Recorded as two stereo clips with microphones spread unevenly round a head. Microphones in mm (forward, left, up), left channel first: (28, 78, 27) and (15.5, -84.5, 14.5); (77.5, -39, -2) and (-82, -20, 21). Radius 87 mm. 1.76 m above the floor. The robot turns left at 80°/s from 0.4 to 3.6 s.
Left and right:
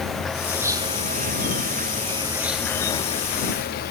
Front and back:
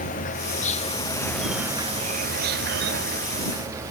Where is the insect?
5° right; by 3.9 s 95° left.